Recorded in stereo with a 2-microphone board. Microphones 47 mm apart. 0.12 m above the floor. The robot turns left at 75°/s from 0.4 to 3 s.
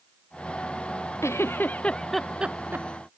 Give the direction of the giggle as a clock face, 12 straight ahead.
10 o'clock.